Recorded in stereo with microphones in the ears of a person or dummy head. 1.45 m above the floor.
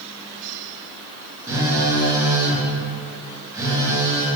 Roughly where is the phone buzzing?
Centre.